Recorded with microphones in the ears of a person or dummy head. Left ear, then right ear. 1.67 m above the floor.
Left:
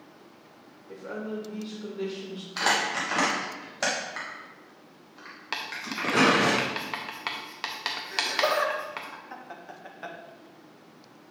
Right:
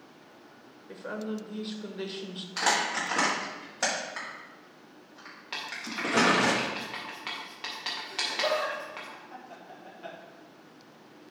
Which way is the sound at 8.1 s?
70° left (ahead or behind).